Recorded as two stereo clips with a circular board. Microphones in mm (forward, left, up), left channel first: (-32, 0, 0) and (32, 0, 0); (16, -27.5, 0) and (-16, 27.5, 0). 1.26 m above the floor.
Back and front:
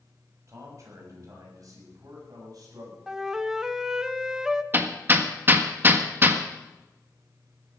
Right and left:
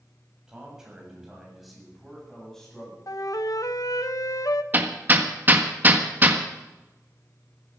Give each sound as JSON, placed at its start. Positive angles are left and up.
{"t": 0.5, "sound": "a man speaking", "azimuth_deg": 40, "distance_m": 7.0}
{"t": 3.1, "sound": "a flute", "azimuth_deg": -80, "distance_m": 0.7}
{"t": 4.7, "sound": "hammering", "azimuth_deg": 60, "distance_m": 1.5}